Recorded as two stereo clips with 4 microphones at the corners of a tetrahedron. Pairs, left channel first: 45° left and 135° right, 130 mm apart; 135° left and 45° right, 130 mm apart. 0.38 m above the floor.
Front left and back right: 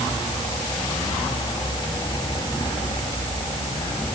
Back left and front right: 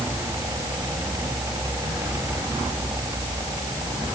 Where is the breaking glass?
I don't hear breaking glass.